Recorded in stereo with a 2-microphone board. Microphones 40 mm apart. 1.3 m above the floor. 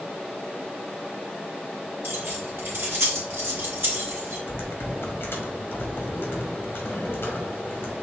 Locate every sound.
2.0 s keys jangling: 85° right, 1.8 m
4.5 s typing on a keyboard: 70° left (ahead or behind), 1.2 m